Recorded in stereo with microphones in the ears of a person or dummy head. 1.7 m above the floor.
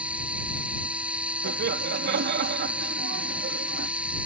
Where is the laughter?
55° right (ahead or behind).